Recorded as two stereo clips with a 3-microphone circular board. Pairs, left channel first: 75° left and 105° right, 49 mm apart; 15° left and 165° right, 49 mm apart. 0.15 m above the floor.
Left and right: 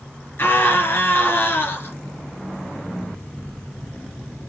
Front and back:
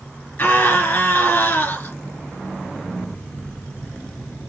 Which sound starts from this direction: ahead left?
A scream, at 0.4 s.